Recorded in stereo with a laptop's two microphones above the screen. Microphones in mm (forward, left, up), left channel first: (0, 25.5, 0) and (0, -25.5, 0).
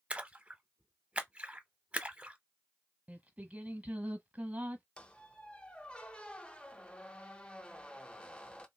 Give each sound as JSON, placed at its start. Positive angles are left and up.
{"t": 0.1, "sound": "a splash", "side_deg": -20, "distance_m": 0.8}
{"t": 3.1, "sound": "singing", "side_deg": -30, "distance_m": 1.1}
{"t": 5.0, "sound": "a squeak", "side_deg": 20, "distance_m": 0.7}